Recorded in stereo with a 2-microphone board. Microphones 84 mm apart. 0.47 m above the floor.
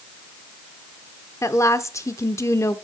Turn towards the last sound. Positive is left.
turn(degrees=35)  # may be behind; listen again after turning